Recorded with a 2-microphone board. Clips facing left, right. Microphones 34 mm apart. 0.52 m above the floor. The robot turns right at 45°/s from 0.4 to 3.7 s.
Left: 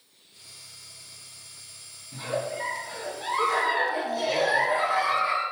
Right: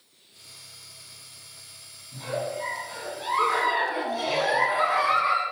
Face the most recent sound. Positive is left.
turn(degrees=-145)